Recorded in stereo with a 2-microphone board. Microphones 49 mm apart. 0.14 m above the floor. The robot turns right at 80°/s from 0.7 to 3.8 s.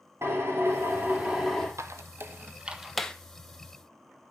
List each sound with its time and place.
0.2 s a drill: 75° right, 4 m; by 1.7 s 5° left, 4 m
1.8 s a squeak: 80° right, 0.8 m; by 3.1 s 15° left (ahead or behind), 0.8 m